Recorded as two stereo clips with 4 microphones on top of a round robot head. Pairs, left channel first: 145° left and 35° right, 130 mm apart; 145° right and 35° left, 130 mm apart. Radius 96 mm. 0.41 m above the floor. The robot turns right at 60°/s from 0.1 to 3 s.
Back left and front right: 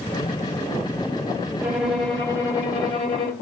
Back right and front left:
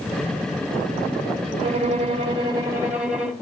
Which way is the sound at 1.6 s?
30° left.